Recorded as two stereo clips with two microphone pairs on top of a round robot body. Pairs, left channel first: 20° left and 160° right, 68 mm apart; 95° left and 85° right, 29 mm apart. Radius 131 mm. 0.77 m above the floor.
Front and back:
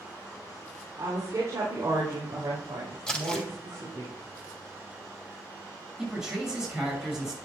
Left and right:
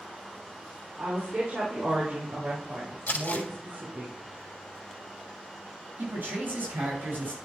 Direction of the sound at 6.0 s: 75° right.